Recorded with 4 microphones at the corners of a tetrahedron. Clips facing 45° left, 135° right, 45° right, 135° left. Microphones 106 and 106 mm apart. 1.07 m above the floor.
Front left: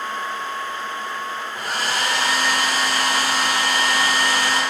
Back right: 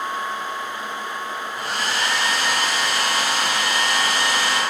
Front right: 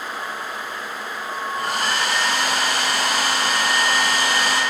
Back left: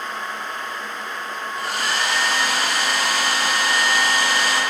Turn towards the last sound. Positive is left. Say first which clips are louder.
# front left 1 dB, front right 1 dB
turn(degrees=0)